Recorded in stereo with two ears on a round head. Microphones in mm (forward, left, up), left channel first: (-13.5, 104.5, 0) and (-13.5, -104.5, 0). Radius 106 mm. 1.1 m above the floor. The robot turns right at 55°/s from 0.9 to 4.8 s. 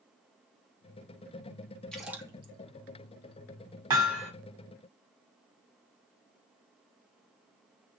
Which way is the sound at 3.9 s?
20° right (ahead or behind).